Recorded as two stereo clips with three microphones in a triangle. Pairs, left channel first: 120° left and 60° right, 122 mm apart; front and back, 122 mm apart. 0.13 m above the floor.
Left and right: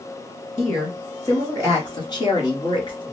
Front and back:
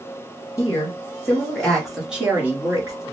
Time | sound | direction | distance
0.6 | a woman speaking | 60° left | 2 m